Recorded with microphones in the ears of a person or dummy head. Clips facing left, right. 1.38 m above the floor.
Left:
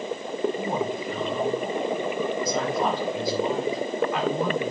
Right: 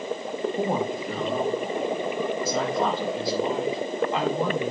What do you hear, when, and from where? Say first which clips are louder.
0.6 s a woman speaking: right 2 dB; 40° right (ahead or behind), 2 m; by 4.7 s 25° right (ahead or behind), 4 m